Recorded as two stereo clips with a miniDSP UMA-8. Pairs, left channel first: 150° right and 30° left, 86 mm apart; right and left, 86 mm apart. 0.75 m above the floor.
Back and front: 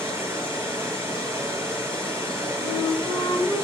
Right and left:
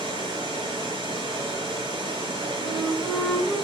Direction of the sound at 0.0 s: 95° left.